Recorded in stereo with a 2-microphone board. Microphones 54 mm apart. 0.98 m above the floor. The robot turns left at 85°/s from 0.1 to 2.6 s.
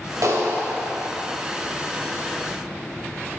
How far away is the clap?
About 3.5 m.